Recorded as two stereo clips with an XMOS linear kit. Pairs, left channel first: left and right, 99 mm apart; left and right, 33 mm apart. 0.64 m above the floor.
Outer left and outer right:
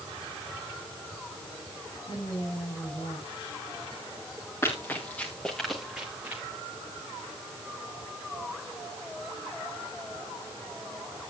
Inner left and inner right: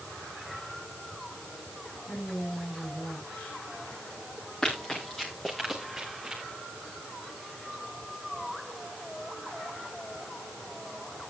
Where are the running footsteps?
25° left (ahead or behind), 3.5 m; by 6.4 s 20° right (ahead or behind), 3 m.